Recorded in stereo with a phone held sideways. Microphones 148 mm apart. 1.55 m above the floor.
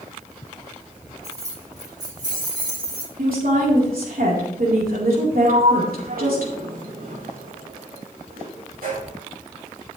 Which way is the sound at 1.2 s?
20° right (ahead or behind).